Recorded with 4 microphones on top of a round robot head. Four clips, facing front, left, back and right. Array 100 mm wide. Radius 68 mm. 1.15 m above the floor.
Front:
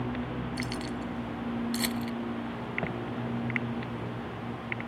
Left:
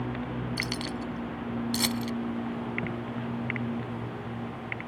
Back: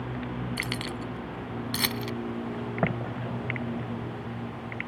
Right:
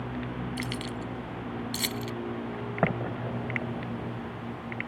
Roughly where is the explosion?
Behind right.